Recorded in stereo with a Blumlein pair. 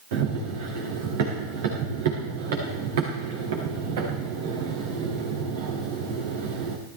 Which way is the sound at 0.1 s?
55° right.